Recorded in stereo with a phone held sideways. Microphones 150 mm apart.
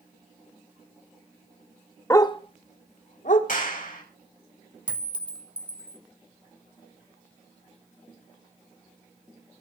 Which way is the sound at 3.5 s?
65° left (ahead or behind).